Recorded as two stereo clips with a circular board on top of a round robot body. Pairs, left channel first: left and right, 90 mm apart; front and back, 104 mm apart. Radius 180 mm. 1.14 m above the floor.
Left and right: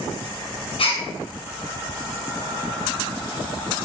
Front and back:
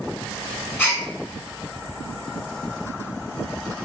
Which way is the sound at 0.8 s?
70° left.